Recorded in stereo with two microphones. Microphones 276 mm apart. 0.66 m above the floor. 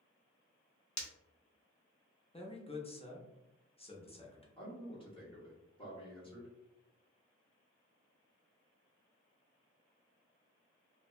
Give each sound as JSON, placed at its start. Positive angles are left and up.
{"t": 1.0, "sound": "breaking glass", "side_deg": 75, "distance_m": 0.6}
{"t": 2.3, "sound": "a man speaking", "side_deg": 20, "distance_m": 0.5}
{"t": 4.6, "sound": "a man speaking", "side_deg": 20, "distance_m": 1.1}